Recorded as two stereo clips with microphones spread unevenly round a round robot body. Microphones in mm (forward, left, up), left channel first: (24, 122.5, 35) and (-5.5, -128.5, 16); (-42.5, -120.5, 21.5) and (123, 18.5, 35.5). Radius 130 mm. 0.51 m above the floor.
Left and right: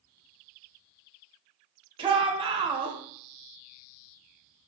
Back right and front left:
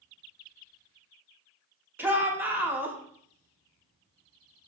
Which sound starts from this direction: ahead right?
A shout, at 2.0 s.